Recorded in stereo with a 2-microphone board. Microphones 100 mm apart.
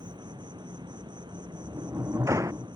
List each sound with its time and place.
0.0 s an insect: 50° right (ahead or behind)
1.3 s a sliding door: 30° right (ahead or behind)